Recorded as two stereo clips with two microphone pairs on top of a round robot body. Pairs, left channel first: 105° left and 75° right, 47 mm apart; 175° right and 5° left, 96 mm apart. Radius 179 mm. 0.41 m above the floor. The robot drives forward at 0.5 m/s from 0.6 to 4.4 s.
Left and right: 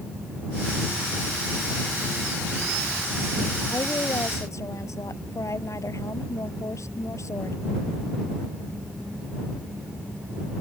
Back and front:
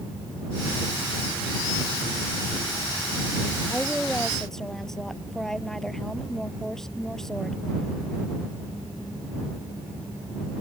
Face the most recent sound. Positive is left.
turn(degrees=100)